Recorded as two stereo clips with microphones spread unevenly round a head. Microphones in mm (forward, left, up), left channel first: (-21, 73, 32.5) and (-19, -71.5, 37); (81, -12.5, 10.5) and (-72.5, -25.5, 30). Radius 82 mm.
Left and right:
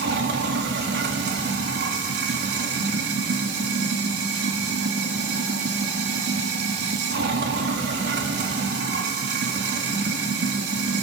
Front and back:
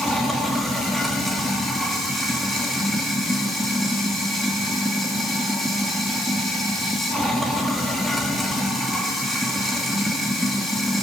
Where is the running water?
85° right, 3 m.